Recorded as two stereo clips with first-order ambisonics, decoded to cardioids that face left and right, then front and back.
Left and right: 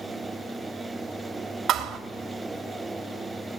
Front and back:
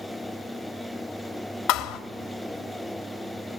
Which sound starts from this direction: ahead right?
A thud, at 1.7 s.